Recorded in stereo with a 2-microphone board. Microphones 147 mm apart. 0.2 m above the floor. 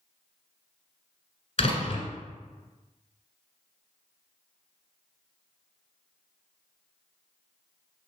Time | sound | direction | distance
1.6 | a door slam | 40° left (ahead or behind) | 1.6 m